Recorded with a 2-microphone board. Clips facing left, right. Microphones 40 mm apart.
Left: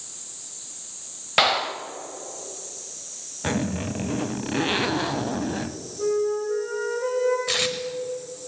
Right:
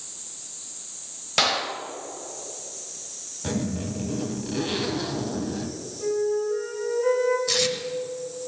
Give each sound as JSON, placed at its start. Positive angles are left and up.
{"t": 1.4, "sound": "a clap", "side_deg": 25, "distance_m": 1.1}
{"t": 3.4, "sound": "a zipper", "side_deg": 50, "distance_m": 0.6}
{"t": 6.0, "sound": "a flute", "side_deg": 80, "distance_m": 6.5}
{"t": 7.5, "sound": "tape being pulled", "side_deg": 35, "distance_m": 1.2}